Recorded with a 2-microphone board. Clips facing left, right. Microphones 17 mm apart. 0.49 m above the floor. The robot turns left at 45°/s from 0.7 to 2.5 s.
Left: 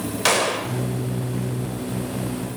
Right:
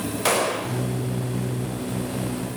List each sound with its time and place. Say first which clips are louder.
0.2 s a gunshot: left 2 dB; 40° left (ahead or behind), 1.3 m; by 0.8 s 45° left (ahead or behind), 1.3 m